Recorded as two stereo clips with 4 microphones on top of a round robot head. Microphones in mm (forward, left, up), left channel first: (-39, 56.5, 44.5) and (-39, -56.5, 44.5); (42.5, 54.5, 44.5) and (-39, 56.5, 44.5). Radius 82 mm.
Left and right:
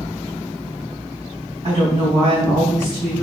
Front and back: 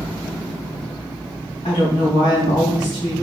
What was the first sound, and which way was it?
A woman speaking, 35° right.